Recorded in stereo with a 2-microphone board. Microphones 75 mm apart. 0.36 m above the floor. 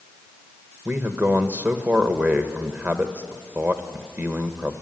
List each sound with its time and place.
0.8 s a man speaking: 25° right (ahead or behind), 1.1 m